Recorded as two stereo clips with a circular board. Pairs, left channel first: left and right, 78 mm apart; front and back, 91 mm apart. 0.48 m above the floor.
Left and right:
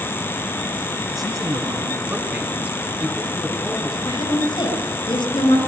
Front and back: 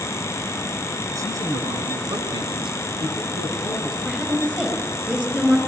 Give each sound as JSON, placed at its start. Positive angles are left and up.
{"t": 1.1, "sound": "a man speaking", "azimuth_deg": -130, "distance_m": 4.5}
{"t": 4.0, "sound": "a woman speaking", "azimuth_deg": 105, "distance_m": 5.5}